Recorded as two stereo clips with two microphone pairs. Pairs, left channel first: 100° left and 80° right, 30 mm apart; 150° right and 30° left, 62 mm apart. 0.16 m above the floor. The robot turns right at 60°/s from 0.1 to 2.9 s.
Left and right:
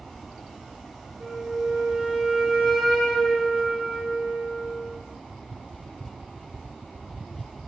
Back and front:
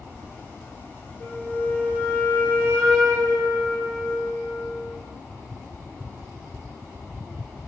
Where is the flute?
95° right, 0.7 m; by 4.9 s 10° left, 0.7 m.